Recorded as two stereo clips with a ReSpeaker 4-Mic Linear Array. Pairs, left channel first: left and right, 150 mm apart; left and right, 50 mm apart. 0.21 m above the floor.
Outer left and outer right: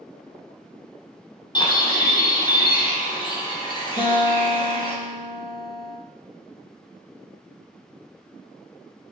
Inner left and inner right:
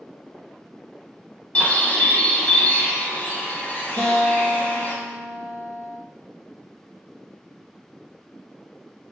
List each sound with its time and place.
1.6 s a bird: 30° left (ahead or behind), 0.6 m
4.0 s a guitar: 45° left (ahead or behind), 1.2 m